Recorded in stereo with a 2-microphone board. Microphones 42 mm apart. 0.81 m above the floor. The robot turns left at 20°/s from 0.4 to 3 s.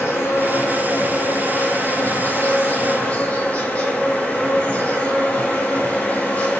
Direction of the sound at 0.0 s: 85° left.